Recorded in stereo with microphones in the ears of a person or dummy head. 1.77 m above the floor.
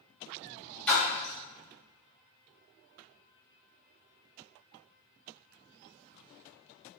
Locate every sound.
0.9 s a splash: 10° left (ahead or behind), 1.3 m